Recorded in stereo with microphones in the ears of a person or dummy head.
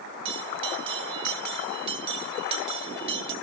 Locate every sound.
0.2 s a bell: 35° right (ahead or behind), 1.9 m